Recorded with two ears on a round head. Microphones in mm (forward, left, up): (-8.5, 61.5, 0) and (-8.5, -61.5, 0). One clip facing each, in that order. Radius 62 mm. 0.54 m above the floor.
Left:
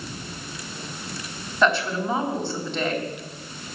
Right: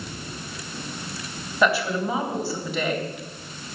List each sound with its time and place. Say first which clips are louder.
1.6 s a woman speaking: even; 5° right (ahead or behind), 3.5 m